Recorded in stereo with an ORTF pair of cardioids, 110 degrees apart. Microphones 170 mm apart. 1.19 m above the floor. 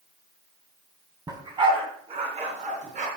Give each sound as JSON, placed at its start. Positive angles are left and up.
{"t": 1.3, "sound": "a dog barking", "azimuth_deg": -25, "distance_m": 3.0}